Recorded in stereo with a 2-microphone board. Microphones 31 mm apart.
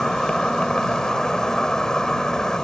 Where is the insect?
20° left (ahead or behind).